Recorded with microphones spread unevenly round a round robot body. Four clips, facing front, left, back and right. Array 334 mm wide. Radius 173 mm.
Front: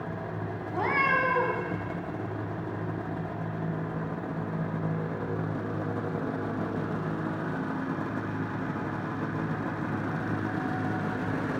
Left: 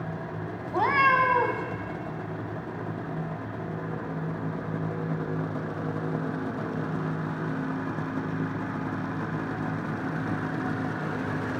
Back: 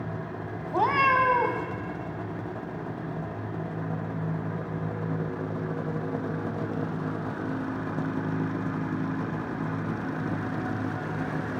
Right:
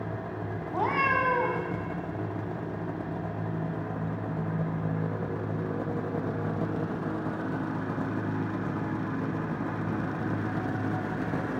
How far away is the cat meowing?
About 1.2 m.